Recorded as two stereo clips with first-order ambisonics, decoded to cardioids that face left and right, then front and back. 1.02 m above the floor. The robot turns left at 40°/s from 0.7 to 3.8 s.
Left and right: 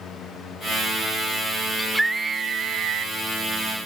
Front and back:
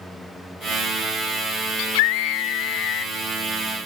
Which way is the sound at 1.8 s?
5° left.